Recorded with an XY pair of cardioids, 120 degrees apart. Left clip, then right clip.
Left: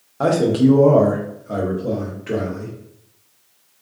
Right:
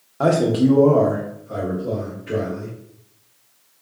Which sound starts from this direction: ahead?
A man speaking, at 0.2 s.